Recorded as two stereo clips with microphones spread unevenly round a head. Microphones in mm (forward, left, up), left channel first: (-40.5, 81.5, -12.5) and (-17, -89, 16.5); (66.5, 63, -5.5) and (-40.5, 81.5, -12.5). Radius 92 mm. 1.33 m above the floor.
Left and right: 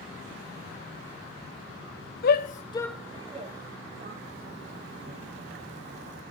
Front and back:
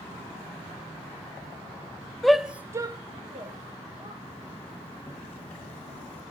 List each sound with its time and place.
2.2 s a shout: 80° left, 0.9 m; by 4.1 s 130° right, 1.8 m
4.2 s a zipper: 90° right, 2.5 m